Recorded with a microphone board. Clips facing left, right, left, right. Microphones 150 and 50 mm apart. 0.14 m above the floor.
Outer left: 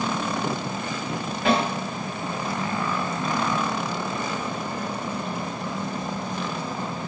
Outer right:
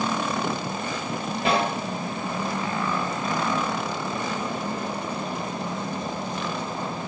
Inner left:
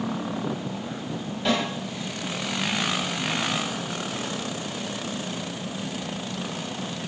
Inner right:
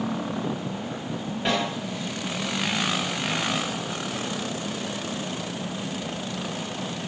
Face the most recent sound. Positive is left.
turn(degrees=-30)  # may be behind; listen again after turning